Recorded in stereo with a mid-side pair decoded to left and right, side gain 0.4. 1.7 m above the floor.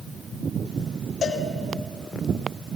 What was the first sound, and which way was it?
A cowbell, 65° left.